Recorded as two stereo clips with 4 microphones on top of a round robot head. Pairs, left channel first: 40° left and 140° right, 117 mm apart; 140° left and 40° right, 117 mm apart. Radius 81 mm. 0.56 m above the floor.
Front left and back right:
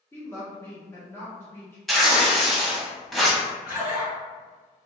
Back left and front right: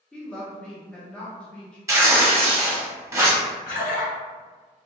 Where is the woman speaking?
70° left, 0.8 m.